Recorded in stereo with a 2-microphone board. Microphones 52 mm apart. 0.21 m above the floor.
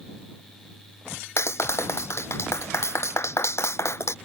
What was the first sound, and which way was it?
A clap, 60° left (ahead or behind).